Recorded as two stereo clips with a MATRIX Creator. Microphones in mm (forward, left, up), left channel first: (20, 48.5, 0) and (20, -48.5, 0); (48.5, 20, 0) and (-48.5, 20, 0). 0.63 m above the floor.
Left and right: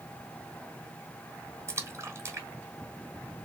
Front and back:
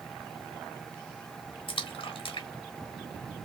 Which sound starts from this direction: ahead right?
A splash, at 1.7 s.